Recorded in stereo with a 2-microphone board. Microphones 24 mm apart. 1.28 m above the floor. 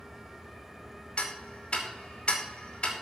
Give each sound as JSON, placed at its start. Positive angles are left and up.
{"t": 1.2, "sound": "ticking", "side_deg": 50, "distance_m": 2.5}